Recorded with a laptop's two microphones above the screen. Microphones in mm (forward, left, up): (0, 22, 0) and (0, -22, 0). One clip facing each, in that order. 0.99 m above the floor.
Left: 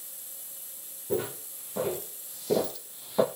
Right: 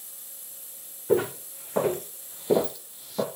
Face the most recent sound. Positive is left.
turn(degrees=25)  # may be behind; listen again after turning